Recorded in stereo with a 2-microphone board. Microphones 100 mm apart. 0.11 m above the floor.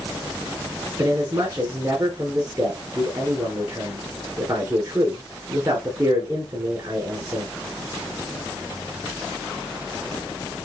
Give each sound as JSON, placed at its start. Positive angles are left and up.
{"t": 1.0, "sound": "a man speaking", "side_deg": -40, "distance_m": 1.5}